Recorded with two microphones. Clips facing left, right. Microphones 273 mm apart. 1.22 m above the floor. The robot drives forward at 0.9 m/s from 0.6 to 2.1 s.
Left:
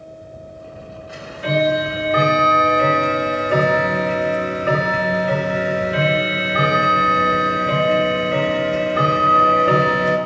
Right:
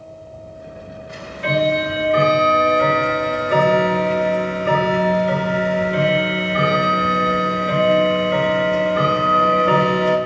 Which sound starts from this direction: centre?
Ticking, at 1.1 s.